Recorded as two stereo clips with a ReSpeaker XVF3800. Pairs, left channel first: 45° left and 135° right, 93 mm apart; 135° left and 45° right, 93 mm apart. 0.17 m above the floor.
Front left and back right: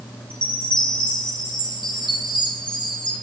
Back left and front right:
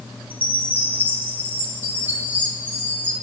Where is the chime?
25° left, 5 m.